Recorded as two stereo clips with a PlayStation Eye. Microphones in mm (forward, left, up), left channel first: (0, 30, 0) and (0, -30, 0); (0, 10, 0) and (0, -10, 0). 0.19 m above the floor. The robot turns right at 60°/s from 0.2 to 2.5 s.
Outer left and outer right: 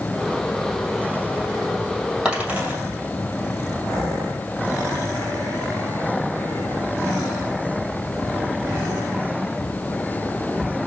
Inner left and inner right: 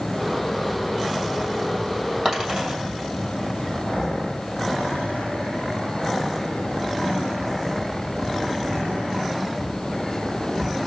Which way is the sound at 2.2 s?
10° right (ahead or behind).